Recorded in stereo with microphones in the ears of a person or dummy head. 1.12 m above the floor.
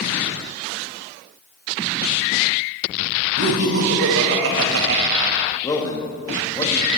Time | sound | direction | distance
3.4 | laughter | 80° right | 1.5 m
5.6 | a man speaking | 25° left (ahead or behind) | 1.2 m